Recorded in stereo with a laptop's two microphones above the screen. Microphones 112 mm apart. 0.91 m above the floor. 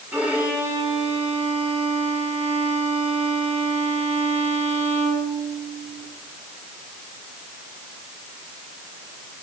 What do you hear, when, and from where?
0.1 s a violin: 15° right (ahead or behind), 6 m